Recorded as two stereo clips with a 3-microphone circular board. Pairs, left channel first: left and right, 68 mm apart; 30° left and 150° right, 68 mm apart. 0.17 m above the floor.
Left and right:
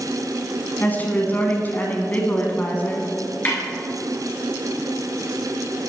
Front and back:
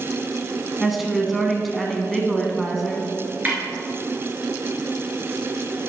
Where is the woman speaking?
125° left, 1.3 m.